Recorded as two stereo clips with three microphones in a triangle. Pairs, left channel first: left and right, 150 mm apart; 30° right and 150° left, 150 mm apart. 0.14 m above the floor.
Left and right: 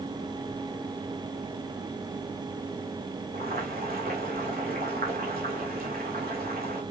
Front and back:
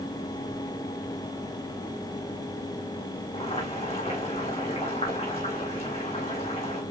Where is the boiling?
80° right, 4 m.